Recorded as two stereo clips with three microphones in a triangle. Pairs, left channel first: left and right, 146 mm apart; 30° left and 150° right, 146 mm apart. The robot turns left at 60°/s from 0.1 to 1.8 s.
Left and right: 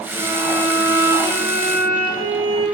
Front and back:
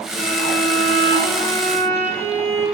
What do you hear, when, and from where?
0.1 s a violin: 155° right, 5.5 m; by 2.6 s 105° left, 5.5 m